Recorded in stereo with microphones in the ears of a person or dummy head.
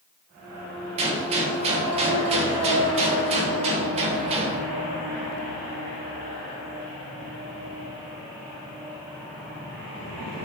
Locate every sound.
1.0 s a gunshot: 35° right (ahead or behind), 1.7 m